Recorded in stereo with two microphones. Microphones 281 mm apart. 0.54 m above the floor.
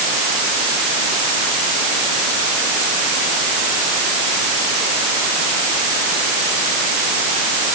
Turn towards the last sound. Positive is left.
No sound to turn to.